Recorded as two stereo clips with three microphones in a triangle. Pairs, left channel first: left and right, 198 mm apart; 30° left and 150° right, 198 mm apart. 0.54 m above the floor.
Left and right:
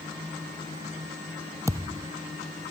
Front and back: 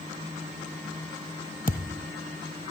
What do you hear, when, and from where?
1.7 s a thud: 15° right